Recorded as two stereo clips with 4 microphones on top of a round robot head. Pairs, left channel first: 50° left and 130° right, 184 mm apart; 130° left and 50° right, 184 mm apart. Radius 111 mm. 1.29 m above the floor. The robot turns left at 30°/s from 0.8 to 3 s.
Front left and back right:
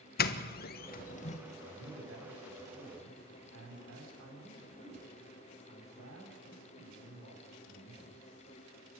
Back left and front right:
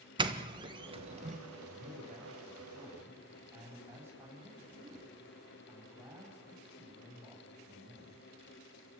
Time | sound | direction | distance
0.2 | a doorbell | 15° left | 1.3 m
1.7 | a man speaking | 90° right | 8.5 m